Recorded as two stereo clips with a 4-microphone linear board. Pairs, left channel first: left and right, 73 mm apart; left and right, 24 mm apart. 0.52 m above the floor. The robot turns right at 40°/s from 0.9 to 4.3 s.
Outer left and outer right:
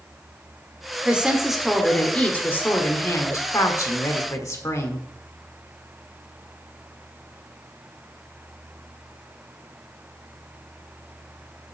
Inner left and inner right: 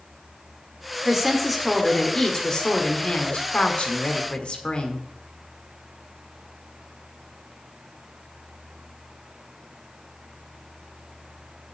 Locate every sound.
1.1 s a woman speaking: 20° right, 1.5 m; by 5.1 s 110° left, 1.5 m